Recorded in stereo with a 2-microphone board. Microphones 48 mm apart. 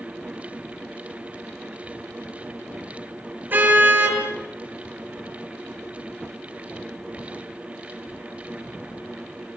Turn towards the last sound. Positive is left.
turn(degrees=-40)  # may be behind; listen again after turning